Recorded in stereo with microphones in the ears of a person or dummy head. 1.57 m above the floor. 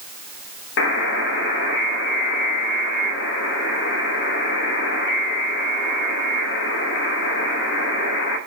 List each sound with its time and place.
0.8 s a buzzer: 50° left (ahead or behind), 1.2 m